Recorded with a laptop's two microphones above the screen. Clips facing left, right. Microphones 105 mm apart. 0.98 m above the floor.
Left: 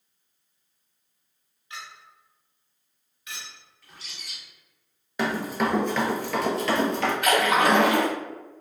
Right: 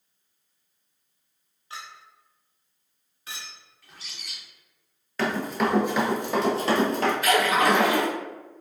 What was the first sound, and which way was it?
A clink, 35° right (ahead or behind).